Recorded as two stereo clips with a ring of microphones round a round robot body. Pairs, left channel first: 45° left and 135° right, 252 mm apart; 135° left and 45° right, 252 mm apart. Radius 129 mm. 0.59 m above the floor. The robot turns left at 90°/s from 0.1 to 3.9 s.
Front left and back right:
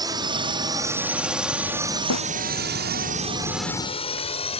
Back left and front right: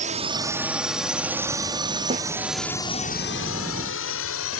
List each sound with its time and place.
0.0 s a drone: 75° right; by 4.6 s 110° left
2.1 s a snare drum: 25° left; by 2.3 s 5° left